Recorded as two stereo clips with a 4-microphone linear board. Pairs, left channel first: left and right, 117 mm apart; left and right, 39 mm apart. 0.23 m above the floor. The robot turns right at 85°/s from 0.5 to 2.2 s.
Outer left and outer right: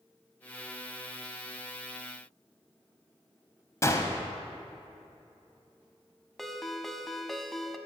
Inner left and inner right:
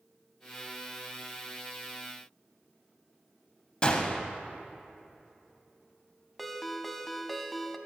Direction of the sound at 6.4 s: Centre (ahead or behind).